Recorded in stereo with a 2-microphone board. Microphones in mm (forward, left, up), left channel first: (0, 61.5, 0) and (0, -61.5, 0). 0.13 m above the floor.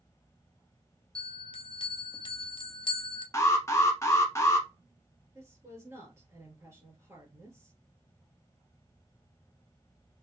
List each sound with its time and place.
1.1 s a bell: 45° left (ahead or behind), 0.6 m
3.3 s an alarm: 25° left (ahead or behind), 0.9 m
5.3 s a woman speaking: 25° right (ahead or behind), 2.5 m